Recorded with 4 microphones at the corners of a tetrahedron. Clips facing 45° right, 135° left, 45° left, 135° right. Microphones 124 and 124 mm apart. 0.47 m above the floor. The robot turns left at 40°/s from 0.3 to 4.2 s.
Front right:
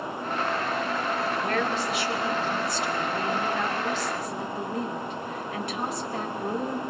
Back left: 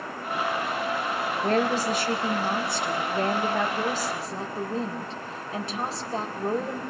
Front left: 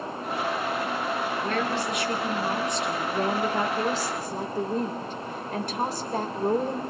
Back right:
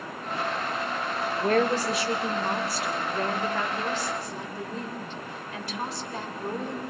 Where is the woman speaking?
165° right, 1.7 m; by 6.8 s 85° left, 1.7 m.